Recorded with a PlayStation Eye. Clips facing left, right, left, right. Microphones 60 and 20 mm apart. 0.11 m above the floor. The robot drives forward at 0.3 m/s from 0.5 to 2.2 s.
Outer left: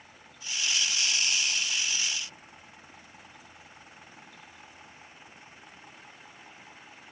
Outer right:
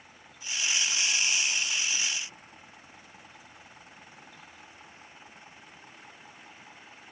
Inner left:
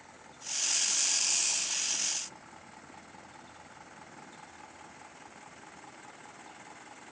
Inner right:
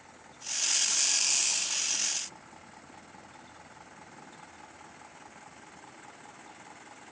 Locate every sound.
Only background noise.